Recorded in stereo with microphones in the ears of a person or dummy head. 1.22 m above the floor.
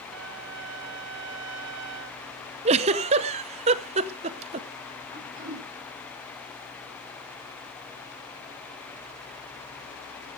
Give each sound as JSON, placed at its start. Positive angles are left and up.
{"t": 0.1, "sound": "a trumpet", "side_deg": -60, "distance_m": 1.4}
{"t": 2.6, "sound": "a giggle", "side_deg": -35, "distance_m": 0.8}
{"t": 5.1, "sound": "throat clearing", "side_deg": -50, "distance_m": 4.5}